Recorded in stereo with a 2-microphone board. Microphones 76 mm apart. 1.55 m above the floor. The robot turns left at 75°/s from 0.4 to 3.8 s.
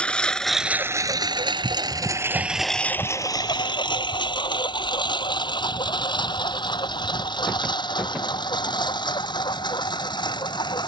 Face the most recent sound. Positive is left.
turn(degrees=70)  # may be behind; listen again after turning